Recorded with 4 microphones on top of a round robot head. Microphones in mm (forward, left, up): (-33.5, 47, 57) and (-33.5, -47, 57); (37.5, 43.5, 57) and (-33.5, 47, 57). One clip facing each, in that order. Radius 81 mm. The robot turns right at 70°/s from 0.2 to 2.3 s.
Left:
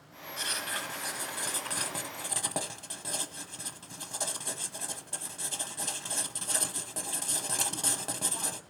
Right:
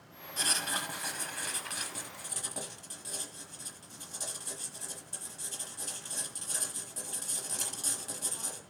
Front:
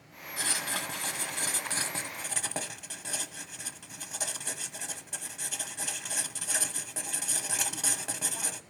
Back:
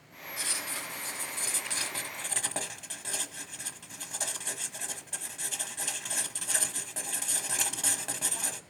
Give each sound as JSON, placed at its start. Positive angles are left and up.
{"t": 0.4, "sound": "writing", "azimuth_deg": -55, "distance_m": 0.9}